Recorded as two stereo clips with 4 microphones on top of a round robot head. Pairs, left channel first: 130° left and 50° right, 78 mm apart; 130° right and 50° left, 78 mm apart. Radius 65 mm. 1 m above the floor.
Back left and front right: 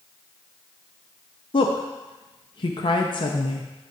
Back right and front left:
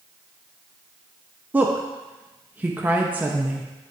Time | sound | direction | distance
1.5 | a woman speaking | 115° left | 0.9 m